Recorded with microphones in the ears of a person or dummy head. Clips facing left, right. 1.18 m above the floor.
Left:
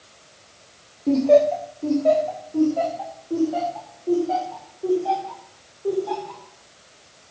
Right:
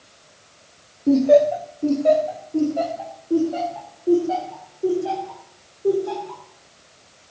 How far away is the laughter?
About 0.7 m.